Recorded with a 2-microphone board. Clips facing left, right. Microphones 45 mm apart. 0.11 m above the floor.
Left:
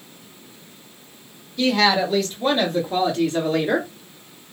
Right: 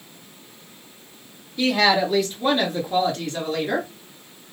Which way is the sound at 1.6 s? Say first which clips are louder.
Even; 15° right (ahead or behind).